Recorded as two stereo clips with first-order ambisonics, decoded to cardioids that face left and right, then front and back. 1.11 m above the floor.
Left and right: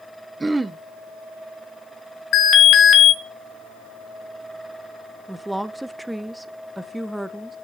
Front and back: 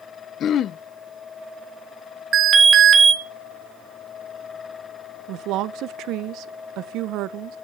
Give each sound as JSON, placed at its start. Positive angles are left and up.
{"t": 0.4, "sound": "throat clearing", "azimuth_deg": -20, "distance_m": 0.5}
{"t": 2.3, "sound": "an alarm", "azimuth_deg": 115, "distance_m": 2.0}
{"t": 5.3, "sound": "a woman speaking", "azimuth_deg": -175, "distance_m": 0.6}